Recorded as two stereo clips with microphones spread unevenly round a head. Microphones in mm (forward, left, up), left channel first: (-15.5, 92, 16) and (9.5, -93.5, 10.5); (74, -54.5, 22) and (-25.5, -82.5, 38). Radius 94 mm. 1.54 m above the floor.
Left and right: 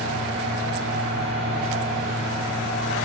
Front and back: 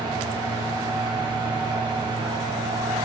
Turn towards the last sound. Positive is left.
turn(degrees=-120)